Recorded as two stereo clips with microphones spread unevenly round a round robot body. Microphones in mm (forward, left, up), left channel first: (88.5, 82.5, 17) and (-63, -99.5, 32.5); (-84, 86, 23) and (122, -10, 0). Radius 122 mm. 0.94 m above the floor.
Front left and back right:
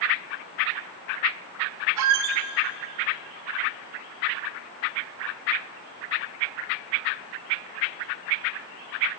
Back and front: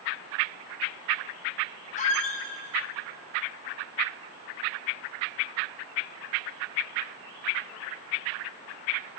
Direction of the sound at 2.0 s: 140° right.